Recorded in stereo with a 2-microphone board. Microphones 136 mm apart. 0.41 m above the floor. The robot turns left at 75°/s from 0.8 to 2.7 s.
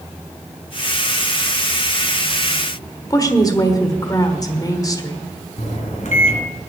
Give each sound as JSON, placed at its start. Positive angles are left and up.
{"t": 3.1, "sound": "a woman speaking", "side_deg": 25, "distance_m": 1.2}
{"t": 5.6, "sound": "a microwave", "side_deg": 65, "distance_m": 2.5}